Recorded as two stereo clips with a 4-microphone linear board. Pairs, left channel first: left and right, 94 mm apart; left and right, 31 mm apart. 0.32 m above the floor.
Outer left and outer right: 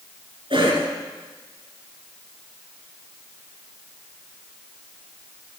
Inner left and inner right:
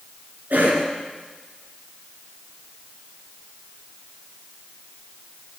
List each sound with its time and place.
0.5 s a cough: 65° right (ahead or behind), 3.5 m